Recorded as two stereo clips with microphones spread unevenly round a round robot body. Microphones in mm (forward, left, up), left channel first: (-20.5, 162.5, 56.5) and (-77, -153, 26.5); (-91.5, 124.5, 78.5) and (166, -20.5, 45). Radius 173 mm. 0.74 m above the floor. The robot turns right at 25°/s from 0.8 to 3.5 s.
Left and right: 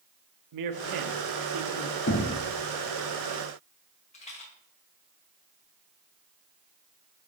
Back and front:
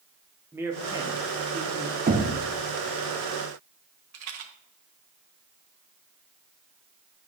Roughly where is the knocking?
Ahead left.